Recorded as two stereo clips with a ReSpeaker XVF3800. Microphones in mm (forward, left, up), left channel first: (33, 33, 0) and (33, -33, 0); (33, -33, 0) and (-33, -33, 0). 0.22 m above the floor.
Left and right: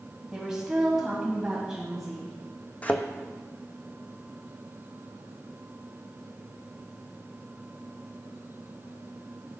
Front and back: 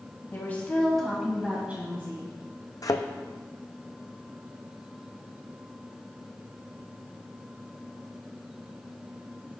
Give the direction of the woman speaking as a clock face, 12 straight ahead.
1 o'clock.